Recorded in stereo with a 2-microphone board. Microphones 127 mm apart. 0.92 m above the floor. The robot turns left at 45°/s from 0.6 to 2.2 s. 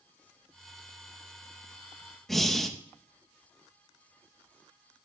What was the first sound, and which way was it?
Breathing, centre (ahead or behind).